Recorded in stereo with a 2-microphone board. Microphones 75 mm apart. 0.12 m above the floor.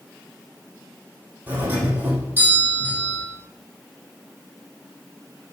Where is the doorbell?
25° right (ahead or behind), 6.5 m.